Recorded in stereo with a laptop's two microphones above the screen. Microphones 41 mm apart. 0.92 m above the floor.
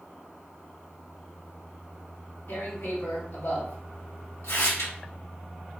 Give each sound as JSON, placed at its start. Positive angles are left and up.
{"t": 2.5, "sound": "tearing paper", "side_deg": 80, "distance_m": 1.0}